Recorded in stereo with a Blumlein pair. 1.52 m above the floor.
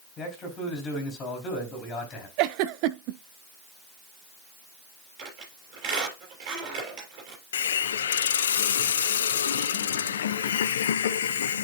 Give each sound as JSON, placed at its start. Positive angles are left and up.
{"t": 0.2, "sound": "a man speaking", "azimuth_deg": 25, "distance_m": 3.5}
{"t": 2.4, "sound": "a giggle", "azimuth_deg": -45, "distance_m": 0.6}
{"t": 5.2, "sound": "a squeak", "azimuth_deg": -35, "distance_m": 6.5}
{"t": 7.5, "sound": "a hiss", "azimuth_deg": 60, "distance_m": 0.7}